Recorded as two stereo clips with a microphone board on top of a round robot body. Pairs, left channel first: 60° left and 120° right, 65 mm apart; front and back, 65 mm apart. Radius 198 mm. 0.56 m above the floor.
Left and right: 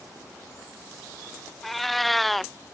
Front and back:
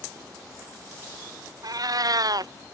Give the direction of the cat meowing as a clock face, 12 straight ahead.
7 o'clock.